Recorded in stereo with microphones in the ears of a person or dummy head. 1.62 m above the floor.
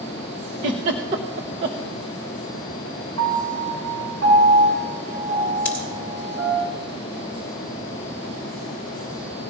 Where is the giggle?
25° right (ahead or behind), 0.8 m.